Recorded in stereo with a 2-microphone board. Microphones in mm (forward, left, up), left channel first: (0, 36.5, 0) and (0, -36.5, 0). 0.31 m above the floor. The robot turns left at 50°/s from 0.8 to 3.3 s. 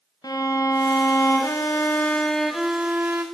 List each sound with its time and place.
0.2 s a violin: 85° left, 0.8 m; by 3.2 s 35° right, 0.8 m